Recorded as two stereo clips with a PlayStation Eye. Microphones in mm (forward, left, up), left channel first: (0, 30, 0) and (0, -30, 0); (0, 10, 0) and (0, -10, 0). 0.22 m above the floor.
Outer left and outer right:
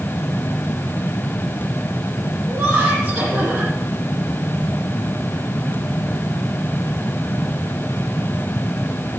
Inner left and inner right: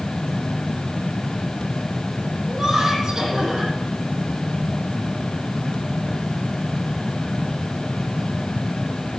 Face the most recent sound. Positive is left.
turn(degrees=-25)  # may be behind; listen again after turning